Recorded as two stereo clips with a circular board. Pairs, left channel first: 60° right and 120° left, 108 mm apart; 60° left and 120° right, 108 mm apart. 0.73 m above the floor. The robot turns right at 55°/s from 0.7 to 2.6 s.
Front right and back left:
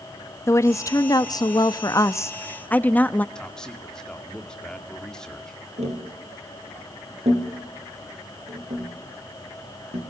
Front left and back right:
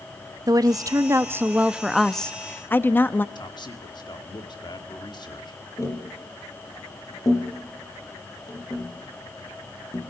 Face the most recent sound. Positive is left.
turn(degrees=120)